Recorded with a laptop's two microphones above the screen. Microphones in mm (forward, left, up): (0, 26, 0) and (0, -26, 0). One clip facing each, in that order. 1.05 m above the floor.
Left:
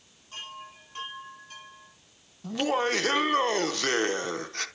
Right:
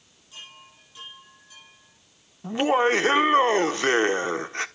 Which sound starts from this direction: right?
Laughter, at 2.4 s.